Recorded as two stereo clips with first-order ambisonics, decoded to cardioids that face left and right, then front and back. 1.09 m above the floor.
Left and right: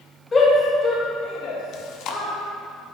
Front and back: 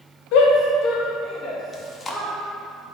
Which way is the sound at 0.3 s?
15° left.